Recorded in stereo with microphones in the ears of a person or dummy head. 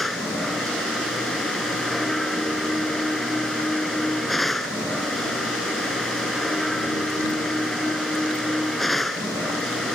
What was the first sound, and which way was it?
A machine running, centre (ahead or behind).